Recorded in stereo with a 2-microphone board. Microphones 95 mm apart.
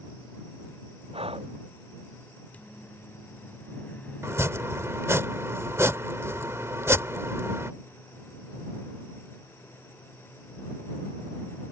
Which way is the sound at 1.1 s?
85° right.